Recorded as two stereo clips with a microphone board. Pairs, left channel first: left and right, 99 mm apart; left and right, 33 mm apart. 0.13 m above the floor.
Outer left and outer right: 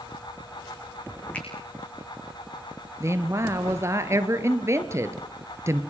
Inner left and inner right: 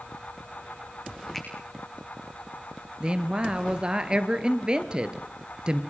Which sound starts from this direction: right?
A woman speaking, at 3.0 s.